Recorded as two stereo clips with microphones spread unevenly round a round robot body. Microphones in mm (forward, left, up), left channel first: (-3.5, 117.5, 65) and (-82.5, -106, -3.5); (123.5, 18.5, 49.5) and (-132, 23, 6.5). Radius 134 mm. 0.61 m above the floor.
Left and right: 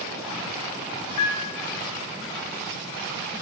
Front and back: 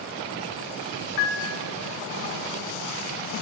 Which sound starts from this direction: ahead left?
A piano, at 1.2 s.